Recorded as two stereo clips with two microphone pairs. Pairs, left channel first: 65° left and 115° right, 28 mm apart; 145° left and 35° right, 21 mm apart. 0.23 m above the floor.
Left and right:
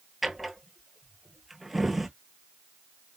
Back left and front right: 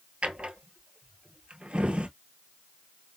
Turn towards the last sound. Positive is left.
turn(degrees=-25)